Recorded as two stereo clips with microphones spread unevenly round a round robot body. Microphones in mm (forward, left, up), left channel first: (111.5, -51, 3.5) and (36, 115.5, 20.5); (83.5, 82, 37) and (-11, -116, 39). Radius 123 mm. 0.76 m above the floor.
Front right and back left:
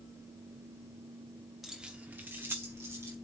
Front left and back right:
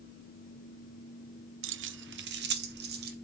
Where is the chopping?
I don't hear chopping.